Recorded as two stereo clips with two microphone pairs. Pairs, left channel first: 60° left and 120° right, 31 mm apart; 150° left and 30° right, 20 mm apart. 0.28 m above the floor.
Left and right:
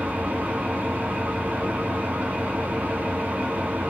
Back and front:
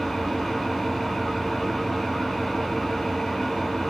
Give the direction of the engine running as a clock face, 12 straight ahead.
4 o'clock.